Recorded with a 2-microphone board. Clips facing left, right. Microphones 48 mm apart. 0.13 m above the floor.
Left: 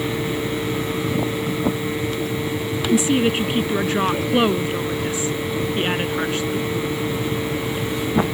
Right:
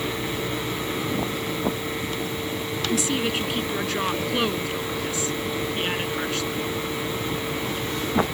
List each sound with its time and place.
2.9 s a woman speaking: 25° left (ahead or behind)